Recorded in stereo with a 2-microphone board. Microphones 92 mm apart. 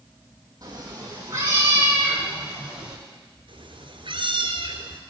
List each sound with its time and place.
0.6 s a cat meowing: 40° right (ahead or behind), 3.5 m; by 3.0 s 10° right (ahead or behind), 4 m
3.5 s a cat meowing: 70° right (ahead or behind), 1.5 m